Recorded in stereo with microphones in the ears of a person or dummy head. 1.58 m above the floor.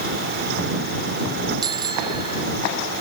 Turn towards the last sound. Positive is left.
turn(degrees=-25)  # may be behind; listen again after turning